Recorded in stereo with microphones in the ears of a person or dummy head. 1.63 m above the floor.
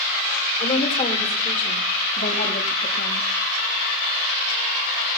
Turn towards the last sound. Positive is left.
turn(degrees=60)  # may be behind; listen again after turning